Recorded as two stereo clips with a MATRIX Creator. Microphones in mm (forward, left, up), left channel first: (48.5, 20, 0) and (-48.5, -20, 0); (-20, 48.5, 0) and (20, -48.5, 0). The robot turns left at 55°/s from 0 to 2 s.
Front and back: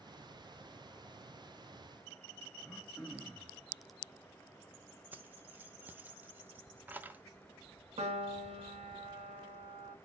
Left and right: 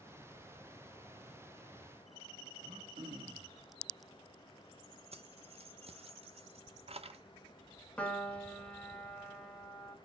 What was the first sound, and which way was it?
Throat clearing, 70° right.